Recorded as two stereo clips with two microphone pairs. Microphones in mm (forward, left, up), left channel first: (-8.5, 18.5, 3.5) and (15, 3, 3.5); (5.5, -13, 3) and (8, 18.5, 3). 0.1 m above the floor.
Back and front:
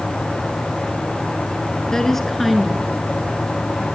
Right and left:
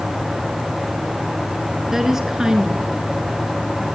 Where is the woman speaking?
130° left, 1.2 m; by 3.9 s 25° left, 1.8 m.